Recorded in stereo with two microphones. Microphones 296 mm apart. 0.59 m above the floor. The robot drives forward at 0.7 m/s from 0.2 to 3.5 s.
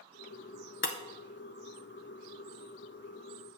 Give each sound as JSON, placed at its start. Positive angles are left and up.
{"t": 0.8, "sound": "breaking glass", "side_deg": 40, "distance_m": 0.7}